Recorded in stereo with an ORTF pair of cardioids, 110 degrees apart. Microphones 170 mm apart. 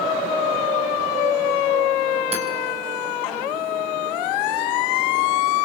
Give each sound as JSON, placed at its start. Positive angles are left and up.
{"t": 2.3, "sound": "hammering", "azimuth_deg": -35, "distance_m": 4.5}